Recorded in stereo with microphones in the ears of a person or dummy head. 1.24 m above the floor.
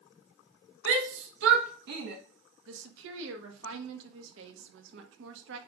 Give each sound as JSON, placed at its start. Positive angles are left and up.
{"t": 0.8, "sound": "a shout", "side_deg": -85, "distance_m": 1.5}
{"t": 2.7, "sound": "a woman speaking", "side_deg": -75, "distance_m": 1.4}